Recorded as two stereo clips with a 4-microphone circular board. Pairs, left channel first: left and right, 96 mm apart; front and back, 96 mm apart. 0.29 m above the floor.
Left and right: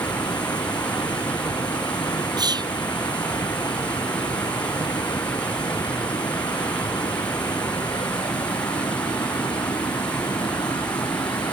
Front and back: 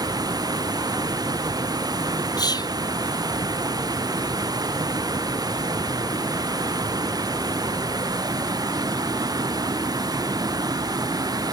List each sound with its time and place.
0.0 s running water: 130° left
2.4 s whispering: 45° right